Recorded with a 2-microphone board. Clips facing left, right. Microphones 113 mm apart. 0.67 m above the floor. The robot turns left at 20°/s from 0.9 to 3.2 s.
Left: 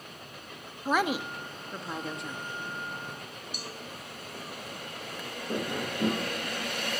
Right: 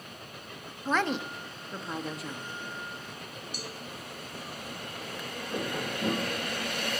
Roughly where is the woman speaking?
Centre.